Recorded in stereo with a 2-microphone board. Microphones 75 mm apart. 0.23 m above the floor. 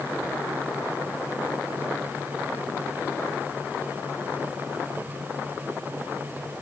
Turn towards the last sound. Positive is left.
No sound to turn to.